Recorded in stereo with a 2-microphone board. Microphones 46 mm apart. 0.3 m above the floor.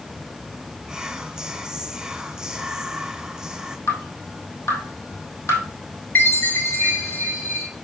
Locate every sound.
0.9 s whispering: 15° right (ahead or behind), 0.9 m
3.9 s dripping: 85° left, 3 m
6.2 s a chime: 40° left (ahead or behind), 4.5 m